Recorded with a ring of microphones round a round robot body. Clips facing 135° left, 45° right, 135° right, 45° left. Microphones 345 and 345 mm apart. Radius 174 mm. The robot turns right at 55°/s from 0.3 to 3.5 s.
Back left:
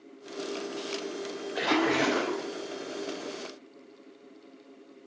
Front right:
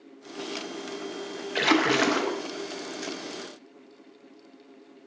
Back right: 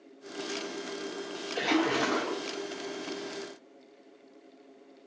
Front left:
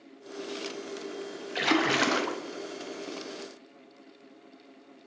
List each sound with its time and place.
1.6 s a splash: 15° right, 0.6 m; by 2.4 s 30° left, 0.6 m